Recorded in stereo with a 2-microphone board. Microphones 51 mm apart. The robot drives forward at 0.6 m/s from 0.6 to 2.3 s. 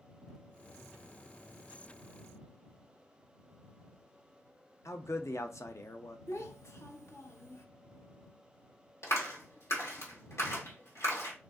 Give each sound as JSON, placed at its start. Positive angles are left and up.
{"t": 4.8, "sound": "a man speaking", "side_deg": 65, "distance_m": 0.5}
{"t": 6.3, "sound": "a child speaking", "side_deg": 65, "distance_m": 0.8}
{"t": 9.0, "sound": "a clap", "side_deg": 65, "distance_m": 1.4}